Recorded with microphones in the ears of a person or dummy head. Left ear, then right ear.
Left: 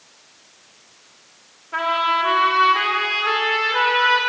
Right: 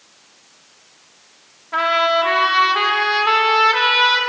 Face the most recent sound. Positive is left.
turn(degrees=-25)  # may be behind; listen again after turning